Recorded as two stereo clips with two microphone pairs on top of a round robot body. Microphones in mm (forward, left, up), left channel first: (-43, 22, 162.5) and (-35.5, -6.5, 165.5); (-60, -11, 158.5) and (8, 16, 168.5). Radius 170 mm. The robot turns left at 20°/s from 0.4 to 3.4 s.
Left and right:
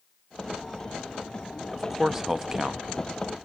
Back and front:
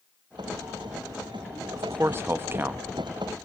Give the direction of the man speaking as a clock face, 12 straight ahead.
12 o'clock.